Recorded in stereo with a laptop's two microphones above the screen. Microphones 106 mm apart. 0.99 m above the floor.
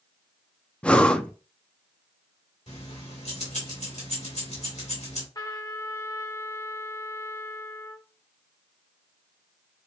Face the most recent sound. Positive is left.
turn(degrees=35)  # may be behind; listen again after turning